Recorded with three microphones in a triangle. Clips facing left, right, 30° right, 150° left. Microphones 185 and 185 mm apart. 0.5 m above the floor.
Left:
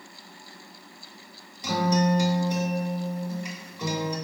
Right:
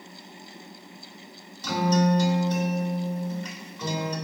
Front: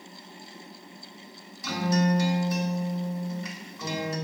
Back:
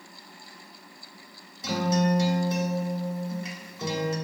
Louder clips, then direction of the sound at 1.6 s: Right 1 dB, back 1 dB; 150° left.